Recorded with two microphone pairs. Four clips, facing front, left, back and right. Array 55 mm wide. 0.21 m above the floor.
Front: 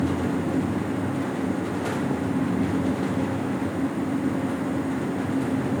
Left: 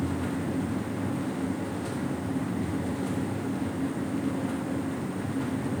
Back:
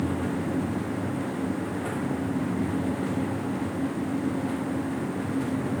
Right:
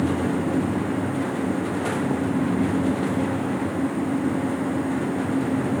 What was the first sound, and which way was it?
Only background noise.